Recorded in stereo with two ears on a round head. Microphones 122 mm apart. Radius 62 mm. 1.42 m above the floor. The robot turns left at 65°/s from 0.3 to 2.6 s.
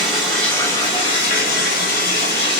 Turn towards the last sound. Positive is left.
turn(degrees=30)